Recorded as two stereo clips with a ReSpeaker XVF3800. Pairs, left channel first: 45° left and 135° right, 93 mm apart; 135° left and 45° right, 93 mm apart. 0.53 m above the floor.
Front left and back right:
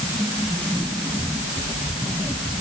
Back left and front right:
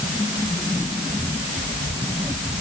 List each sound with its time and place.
Only background noise.